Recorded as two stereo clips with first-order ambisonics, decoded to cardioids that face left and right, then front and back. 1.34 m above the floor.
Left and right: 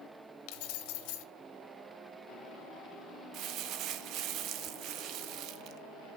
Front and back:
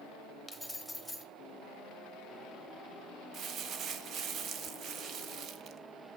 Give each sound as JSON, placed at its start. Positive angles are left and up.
{"t": 0.5, "sound": "keys jangling", "azimuth_deg": 95, "distance_m": 1.0}
{"t": 3.3, "sound": "crumpling", "azimuth_deg": -130, "distance_m": 0.5}